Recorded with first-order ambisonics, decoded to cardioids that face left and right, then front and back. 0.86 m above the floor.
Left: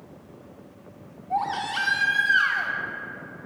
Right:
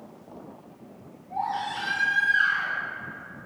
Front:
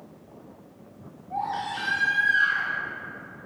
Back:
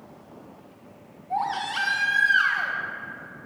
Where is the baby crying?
135° left, 0.5 m.